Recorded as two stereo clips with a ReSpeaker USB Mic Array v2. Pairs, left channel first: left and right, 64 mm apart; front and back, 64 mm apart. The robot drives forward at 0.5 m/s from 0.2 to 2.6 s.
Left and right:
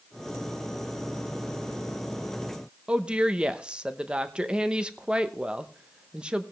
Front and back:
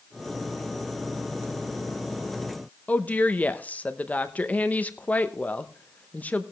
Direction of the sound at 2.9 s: 35° right.